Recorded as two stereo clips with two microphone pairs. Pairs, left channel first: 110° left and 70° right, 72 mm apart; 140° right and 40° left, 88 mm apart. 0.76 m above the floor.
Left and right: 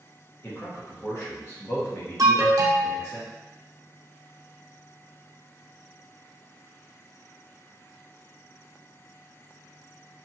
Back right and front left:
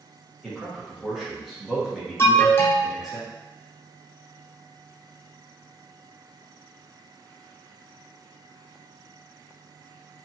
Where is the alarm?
90° right, 0.6 m.